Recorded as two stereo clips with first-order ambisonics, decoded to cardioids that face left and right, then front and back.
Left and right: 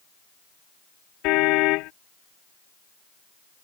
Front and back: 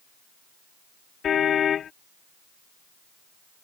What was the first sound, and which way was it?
A car horn, 60° left.